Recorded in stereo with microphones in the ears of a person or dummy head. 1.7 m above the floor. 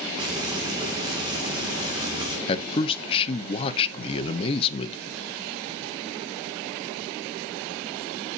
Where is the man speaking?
30° left (ahead or behind), 1.1 m.